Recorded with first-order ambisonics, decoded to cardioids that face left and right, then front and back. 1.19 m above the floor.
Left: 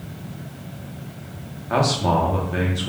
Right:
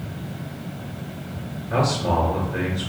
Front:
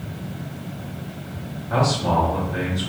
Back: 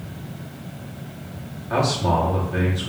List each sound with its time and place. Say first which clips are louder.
1.7 s a man speaking: left 2 dB, even; 105° left, 1.0 m